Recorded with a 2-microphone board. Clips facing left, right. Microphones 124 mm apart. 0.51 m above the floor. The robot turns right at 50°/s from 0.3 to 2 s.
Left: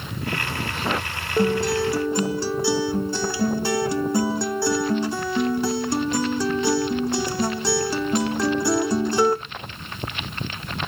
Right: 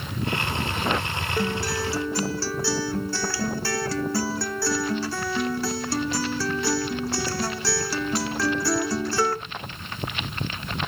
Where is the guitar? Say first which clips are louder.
Left 8 dB; 20° left (ahead or behind), 0.8 m.